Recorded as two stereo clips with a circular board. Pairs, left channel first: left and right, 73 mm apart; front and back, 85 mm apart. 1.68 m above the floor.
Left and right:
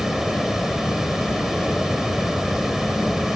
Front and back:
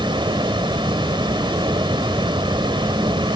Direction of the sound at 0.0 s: 175° right.